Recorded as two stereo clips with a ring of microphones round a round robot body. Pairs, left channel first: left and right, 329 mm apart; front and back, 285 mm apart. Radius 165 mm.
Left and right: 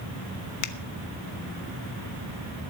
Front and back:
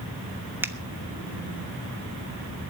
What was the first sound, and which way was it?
A finger snap, 100° left.